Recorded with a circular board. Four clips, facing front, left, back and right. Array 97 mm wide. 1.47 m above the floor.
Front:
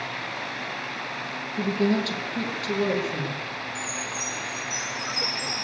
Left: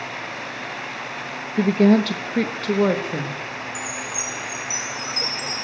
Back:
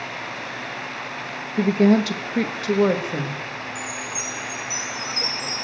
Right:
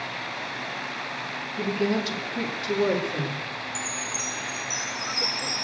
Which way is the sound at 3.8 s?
165° left.